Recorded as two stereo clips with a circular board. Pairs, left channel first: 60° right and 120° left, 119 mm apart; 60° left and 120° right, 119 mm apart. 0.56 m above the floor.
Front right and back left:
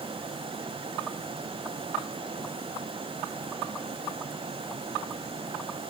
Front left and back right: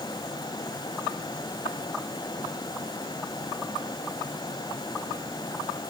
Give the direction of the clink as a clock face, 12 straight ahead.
No clink in this recording.